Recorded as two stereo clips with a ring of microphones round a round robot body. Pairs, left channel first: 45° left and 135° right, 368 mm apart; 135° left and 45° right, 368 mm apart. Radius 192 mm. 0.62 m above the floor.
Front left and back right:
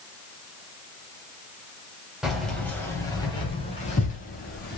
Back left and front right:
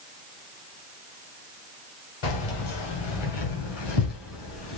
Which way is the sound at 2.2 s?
135° left.